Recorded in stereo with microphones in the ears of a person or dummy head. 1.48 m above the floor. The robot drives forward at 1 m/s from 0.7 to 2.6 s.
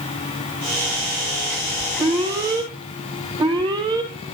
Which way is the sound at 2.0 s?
25° right (ahead or behind).